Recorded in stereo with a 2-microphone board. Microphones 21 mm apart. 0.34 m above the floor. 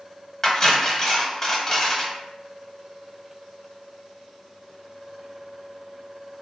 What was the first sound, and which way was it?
Cutlery clinking, 25° left (ahead or behind).